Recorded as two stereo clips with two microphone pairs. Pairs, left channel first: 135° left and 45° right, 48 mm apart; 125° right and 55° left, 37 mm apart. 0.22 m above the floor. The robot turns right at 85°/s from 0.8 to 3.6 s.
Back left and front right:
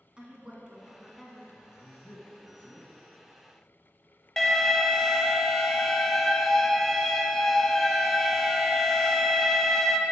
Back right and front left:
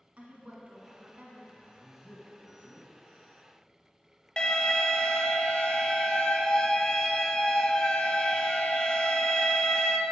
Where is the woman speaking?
20° left, 1.5 m; by 1.4 s 70° left, 1.5 m.